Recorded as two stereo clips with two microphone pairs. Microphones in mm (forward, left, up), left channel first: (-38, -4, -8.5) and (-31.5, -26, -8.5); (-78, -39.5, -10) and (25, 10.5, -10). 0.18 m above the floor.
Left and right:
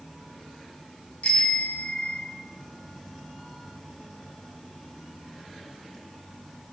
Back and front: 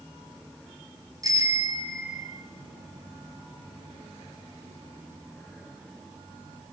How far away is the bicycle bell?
About 2.5 m.